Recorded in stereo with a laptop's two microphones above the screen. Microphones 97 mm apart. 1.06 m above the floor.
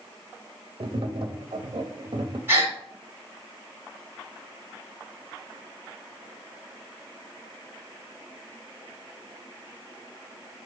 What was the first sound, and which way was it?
Tapping, 55° right (ahead or behind).